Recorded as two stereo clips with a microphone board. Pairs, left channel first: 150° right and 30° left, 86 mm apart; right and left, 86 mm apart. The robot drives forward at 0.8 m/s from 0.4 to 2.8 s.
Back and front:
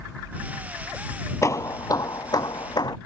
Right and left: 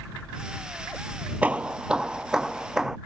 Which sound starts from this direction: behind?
Hammering, at 1.4 s.